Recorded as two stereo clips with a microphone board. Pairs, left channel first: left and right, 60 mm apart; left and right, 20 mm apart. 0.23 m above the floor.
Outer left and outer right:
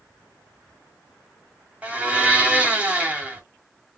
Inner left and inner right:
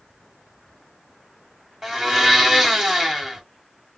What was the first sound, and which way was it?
A blender, 20° right (ahead or behind).